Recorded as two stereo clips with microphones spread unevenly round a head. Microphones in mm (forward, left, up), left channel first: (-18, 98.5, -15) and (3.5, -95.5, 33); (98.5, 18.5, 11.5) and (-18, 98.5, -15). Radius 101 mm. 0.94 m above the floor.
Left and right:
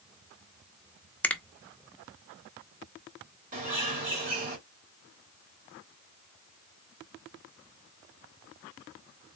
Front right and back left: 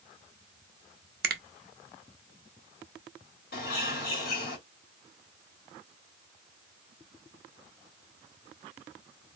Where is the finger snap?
175° left, 0.7 m.